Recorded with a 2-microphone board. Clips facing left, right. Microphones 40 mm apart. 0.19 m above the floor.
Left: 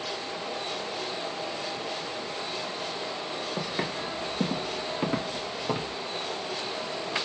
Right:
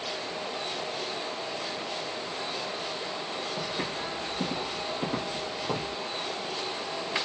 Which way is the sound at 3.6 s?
50° left (ahead or behind).